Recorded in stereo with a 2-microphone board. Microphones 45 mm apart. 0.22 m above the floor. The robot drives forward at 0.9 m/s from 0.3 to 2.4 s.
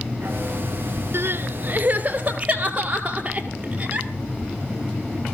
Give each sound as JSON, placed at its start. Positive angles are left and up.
{"t": 1.1, "sound": "crying", "side_deg": -60, "distance_m": 0.8}